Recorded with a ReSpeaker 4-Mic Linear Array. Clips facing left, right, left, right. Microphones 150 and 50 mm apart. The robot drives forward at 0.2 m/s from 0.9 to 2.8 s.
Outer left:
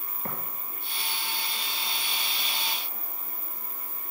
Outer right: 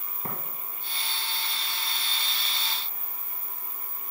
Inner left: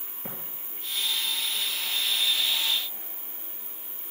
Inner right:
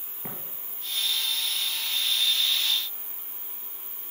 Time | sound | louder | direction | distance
0.2 | tapping | even, even | 20° right (ahead or behind) | 2.5 m